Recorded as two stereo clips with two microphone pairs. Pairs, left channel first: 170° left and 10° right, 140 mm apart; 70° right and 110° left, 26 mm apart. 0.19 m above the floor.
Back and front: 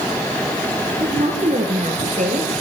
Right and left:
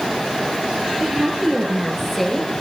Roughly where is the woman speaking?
Ahead left.